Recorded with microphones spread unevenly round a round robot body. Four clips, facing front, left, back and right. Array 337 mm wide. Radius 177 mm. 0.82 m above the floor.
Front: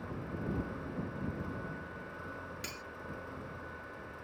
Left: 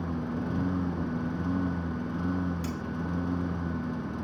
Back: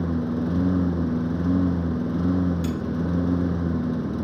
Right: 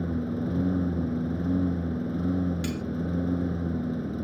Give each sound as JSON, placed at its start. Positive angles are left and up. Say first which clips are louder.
{"t": 0.0, "sound": "a lawn mower", "louder": "right 3 dB, back 16 dB", "azimuth_deg": -175}
{"t": 2.6, "sound": "cutlery clinking", "louder": "right 3 dB, back 19 dB", "azimuth_deg": -75}